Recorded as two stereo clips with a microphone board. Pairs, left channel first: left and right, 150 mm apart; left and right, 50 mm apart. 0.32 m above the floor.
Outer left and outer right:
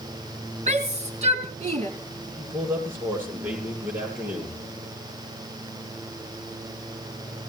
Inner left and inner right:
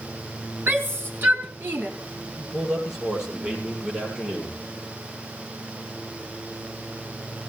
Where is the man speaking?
15° right (ahead or behind), 9.5 m.